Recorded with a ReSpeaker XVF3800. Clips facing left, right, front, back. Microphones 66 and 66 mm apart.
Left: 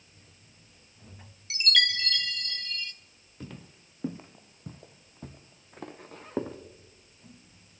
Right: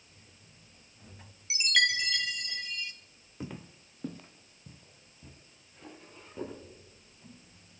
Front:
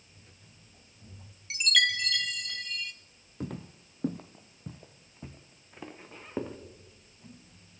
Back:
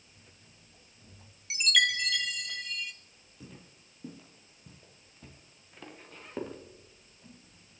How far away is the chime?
About 0.6 m.